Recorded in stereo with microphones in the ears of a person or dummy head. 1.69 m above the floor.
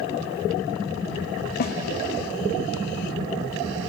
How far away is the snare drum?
About 0.9 m.